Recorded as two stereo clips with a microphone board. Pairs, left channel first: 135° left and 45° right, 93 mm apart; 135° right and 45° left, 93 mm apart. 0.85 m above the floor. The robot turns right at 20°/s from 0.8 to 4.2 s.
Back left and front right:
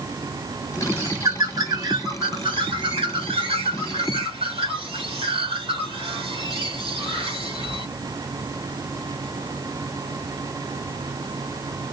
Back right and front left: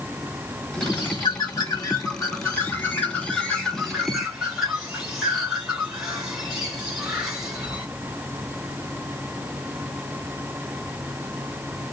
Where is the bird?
105° right, 2 m; by 7.9 s 40° right, 2 m.